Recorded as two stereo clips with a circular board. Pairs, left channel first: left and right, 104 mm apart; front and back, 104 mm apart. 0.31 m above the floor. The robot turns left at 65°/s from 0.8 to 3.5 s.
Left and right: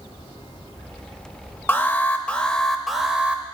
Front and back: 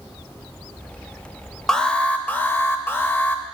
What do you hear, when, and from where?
1.7 s an alarm: 75° left, 0.5 m; by 3.4 s 40° right, 0.5 m